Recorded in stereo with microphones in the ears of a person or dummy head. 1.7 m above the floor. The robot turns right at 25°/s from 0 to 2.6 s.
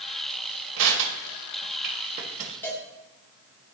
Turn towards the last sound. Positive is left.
turn(degrees=15)  # may be behind; listen again after turning